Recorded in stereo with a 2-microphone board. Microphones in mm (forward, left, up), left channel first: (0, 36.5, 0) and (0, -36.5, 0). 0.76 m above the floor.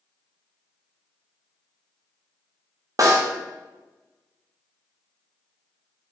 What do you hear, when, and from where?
3.0 s a snare drum: 50° right (ahead or behind), 0.6 m